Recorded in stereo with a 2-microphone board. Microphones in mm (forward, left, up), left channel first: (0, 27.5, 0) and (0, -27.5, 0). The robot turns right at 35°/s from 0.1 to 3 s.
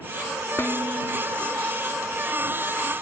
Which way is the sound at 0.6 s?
45° left (ahead or behind).